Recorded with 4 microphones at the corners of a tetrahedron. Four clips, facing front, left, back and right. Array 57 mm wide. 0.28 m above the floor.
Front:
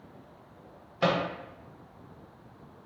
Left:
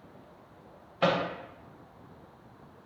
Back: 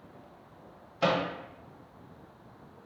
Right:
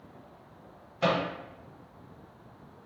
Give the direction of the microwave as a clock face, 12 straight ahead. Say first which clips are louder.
Left 1 dB, front 1 dB; 10 o'clock.